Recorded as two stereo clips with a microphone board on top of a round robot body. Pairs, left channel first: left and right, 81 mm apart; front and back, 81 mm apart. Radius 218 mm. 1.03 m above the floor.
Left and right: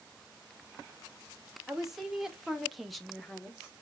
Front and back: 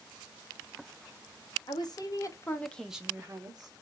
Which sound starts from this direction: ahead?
A woman speaking, at 1.7 s.